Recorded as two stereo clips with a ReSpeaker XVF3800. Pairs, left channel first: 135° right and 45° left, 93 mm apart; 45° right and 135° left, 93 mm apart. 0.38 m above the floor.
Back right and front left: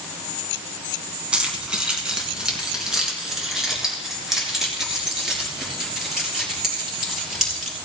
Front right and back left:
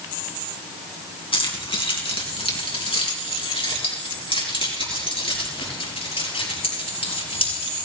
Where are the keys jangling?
35° right, 3 m; by 7.8 s 45° right, 7 m.